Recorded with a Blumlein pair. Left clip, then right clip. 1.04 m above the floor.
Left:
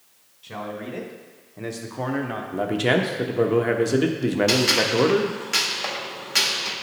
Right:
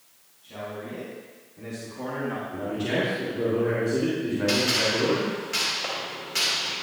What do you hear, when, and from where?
0.4 s a man speaking: 40° left, 1.7 m; by 2.4 s 15° left, 0.6 m
2.5 s a man speaking: 45° left, 1.0 m
4.5 s a gunshot: 70° left, 1.3 m